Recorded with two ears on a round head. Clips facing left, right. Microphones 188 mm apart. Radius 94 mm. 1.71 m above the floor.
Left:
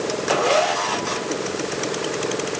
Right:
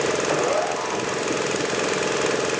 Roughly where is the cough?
No cough in this recording.